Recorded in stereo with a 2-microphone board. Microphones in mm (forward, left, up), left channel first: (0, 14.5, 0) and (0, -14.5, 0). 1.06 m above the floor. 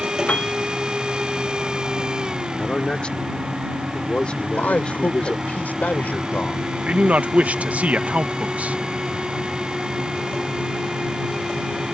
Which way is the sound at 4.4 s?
75° left (ahead or behind).